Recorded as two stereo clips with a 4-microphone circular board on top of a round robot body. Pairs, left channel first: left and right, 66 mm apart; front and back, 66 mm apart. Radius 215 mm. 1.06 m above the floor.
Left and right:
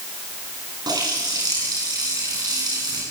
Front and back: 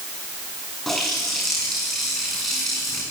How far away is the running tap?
About 8 m.